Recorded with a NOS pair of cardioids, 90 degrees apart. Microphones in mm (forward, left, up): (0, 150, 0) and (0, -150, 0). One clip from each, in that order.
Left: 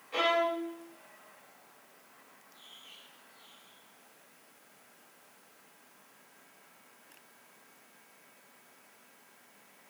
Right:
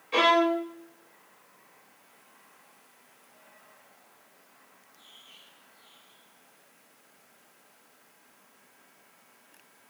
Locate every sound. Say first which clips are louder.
0.1 s a violin: right 6 dB; 45° right, 0.8 m